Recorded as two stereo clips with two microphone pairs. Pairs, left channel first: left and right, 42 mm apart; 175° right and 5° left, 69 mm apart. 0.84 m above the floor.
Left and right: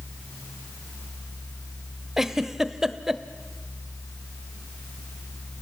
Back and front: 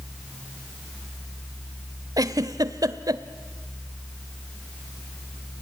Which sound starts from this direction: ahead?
A giggle, at 2.2 s.